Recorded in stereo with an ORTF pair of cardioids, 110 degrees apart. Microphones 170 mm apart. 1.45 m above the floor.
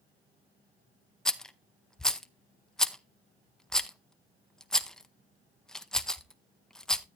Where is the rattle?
5° left, 0.6 m.